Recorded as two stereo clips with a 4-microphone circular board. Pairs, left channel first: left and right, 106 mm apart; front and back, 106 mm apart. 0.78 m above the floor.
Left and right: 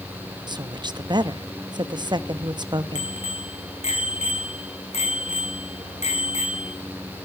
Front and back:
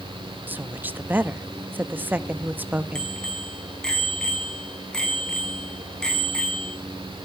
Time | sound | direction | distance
0.5 | a woman speaking | 115° right | 0.9 m
3.0 | a bicycle bell | 85° left | 4.5 m